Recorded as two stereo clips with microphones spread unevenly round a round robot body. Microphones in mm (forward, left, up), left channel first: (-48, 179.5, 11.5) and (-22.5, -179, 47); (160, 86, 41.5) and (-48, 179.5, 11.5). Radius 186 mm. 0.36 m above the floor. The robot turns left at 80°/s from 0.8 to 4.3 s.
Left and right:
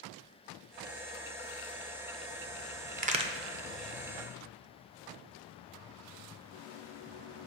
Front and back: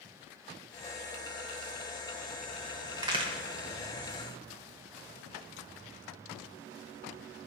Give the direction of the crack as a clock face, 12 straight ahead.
5 o'clock.